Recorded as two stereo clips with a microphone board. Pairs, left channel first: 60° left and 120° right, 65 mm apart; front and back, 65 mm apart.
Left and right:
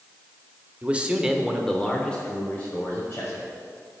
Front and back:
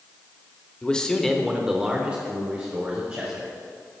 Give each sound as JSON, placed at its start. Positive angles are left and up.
{"t": 0.8, "sound": "a man speaking", "azimuth_deg": -65, "distance_m": 1.2}